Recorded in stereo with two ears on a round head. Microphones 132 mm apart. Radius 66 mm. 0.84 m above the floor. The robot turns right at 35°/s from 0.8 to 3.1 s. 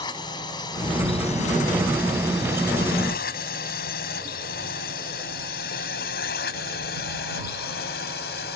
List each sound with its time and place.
0.0 s a drone: 30° left (ahead or behind); by 8.6 s 75° left (ahead or behind)